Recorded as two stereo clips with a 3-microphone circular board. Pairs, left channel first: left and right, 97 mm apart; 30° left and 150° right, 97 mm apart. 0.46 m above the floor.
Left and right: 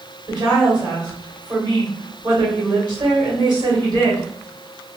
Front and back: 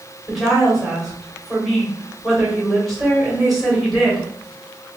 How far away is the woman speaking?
About 1.8 m.